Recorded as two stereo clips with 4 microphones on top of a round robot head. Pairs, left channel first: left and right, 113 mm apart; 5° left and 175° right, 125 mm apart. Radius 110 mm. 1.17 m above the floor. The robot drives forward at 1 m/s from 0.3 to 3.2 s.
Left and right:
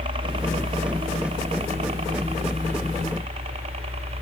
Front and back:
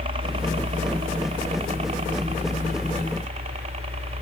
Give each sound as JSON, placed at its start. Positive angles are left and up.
{"t": 0.0, "sound": "a helicopter", "azimuth_deg": -130}